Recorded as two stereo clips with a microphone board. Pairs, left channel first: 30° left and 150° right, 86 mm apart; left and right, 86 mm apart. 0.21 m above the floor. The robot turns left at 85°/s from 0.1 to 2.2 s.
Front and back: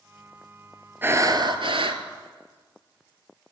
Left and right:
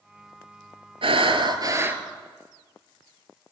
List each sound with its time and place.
1.0 s breathing: 80° right, 0.8 m; by 2.0 s 170° right, 0.8 m